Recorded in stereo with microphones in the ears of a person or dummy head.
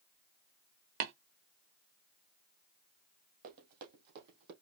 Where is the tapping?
40° right (ahead or behind), 1.0 m.